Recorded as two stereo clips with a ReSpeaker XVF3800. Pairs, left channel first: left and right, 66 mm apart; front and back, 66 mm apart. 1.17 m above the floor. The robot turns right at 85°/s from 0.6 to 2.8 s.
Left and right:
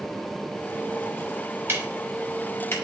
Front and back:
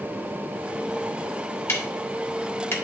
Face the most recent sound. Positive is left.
turn(degrees=50)